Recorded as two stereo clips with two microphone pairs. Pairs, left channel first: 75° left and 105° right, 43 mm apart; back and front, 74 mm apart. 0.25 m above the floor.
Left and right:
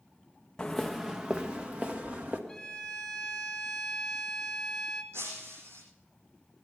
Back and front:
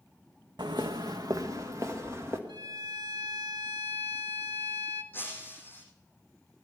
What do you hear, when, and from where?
0.6 s footsteps: 5° left, 0.8 m; by 2.4 s 55° right, 2.5 m
2.5 s a violin: straight ahead, 1.3 m
5.1 s breaking glass: 115° right, 8.5 m